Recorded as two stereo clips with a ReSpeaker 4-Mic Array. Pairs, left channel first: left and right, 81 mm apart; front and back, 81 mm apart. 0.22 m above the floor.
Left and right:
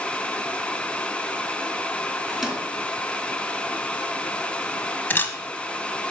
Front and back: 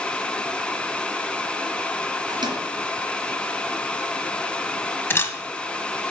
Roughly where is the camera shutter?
Ahead left.